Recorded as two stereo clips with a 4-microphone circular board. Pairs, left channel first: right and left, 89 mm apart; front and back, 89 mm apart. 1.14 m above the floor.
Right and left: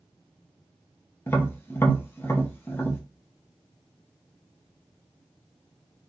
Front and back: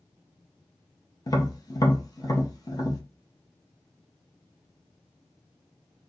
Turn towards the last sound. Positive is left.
turn(degrees=-30)